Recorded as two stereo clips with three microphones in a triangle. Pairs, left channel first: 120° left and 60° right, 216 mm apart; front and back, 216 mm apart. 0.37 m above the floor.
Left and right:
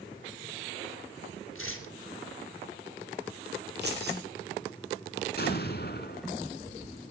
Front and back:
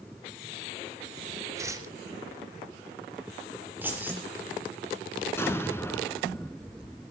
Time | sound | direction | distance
1.6 | tearing paper | 105° left | 3 m
3.8 | keys jangling | 100° right | 5.5 m
5.4 | an explosion | 80° left | 1.8 m